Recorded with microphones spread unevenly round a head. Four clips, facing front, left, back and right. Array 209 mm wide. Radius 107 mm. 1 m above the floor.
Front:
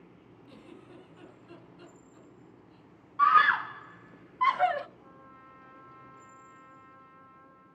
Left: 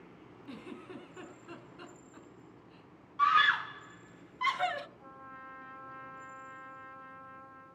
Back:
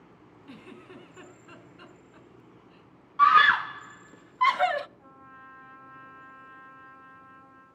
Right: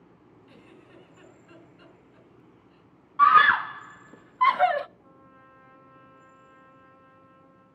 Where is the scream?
115° right, 0.6 m.